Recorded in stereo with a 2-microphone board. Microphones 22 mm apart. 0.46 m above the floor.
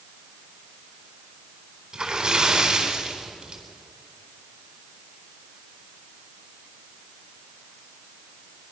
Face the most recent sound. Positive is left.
turn(degrees=-35)  # may be behind; listen again after turning